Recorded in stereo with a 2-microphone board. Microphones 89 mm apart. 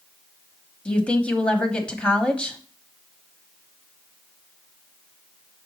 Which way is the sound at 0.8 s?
15° left (ahead or behind).